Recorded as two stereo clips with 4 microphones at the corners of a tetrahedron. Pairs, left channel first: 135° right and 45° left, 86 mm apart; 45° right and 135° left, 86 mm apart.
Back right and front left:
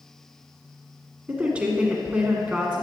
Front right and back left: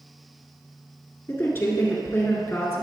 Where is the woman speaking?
15° right, 1.5 m.